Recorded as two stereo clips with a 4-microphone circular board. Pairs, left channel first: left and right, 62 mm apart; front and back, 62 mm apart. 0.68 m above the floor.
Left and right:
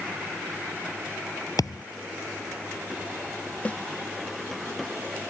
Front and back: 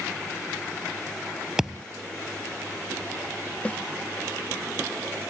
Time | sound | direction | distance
1.6 | a thud | 100° left | ?
3.6 | a snare drum | 50° left | ?